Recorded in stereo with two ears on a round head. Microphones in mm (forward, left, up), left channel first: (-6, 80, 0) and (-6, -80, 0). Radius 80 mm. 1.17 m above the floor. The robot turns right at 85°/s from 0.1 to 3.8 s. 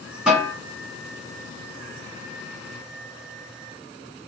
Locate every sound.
0.3 s a snare drum: 5° right (ahead or behind), 2.5 m; by 0.5 s 20° left (ahead or behind), 2.5 m